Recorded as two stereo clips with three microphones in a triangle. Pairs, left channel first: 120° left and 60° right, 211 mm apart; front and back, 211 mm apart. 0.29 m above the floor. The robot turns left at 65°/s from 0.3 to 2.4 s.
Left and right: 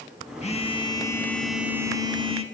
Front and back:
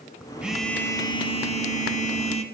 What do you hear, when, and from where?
0.4 s a phone buzzing: 100° left, 0.7 m; by 2.4 s 30° right, 0.7 m